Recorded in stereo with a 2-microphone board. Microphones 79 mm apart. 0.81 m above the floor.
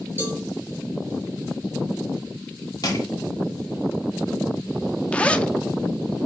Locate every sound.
0.2 s a cowbell: 25° right (ahead or behind), 4.5 m
2.8 s crushing: 50° left (ahead or behind), 1.9 m
5.1 s a zipper: 15° left (ahead or behind), 0.5 m